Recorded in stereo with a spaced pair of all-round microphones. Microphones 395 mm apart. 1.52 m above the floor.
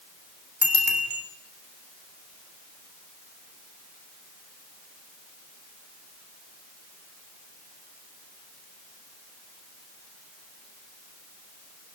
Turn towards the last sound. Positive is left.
turn(degrees=-65)  # may be behind; listen again after turning